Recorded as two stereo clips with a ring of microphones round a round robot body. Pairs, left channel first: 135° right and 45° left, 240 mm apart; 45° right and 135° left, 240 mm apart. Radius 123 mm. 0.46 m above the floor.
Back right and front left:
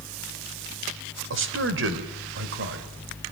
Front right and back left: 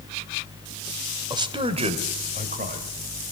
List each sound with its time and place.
1.3 s a man speaking: 65° left, 2 m; by 2.9 s 80° left, 3 m